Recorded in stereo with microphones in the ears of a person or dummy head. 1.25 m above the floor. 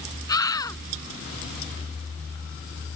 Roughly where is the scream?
Centre.